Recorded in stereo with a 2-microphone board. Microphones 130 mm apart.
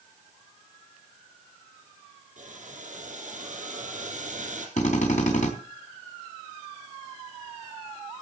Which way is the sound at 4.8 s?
70° left (ahead or behind).